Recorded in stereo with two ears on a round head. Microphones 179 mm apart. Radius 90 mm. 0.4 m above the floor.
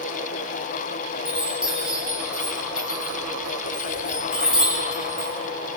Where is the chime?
5° right (ahead or behind), 7.5 m.